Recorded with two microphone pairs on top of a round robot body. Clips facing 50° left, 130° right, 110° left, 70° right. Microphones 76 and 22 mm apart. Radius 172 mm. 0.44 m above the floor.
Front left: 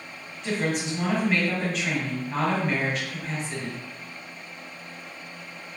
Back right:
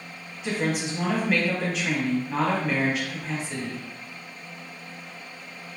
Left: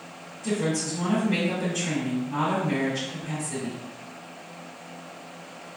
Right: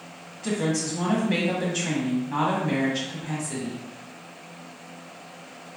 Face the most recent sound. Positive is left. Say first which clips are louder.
# even, right 1 dB
turn(degrees=-35)